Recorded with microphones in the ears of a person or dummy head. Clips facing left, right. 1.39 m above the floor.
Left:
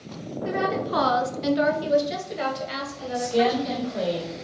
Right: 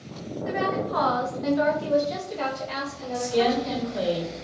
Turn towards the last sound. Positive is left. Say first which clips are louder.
# left 1 dB
turn(degrees=0)  # may be behind; listen again after turning